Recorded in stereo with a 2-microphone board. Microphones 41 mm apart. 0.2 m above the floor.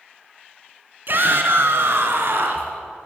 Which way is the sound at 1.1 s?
55° right (ahead or behind).